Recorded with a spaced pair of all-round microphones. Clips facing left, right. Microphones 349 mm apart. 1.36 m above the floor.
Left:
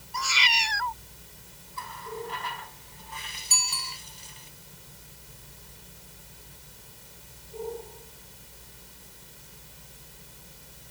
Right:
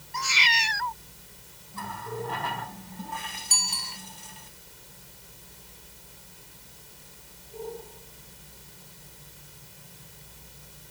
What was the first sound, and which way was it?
A cat meowing, 35° right (ahead or behind).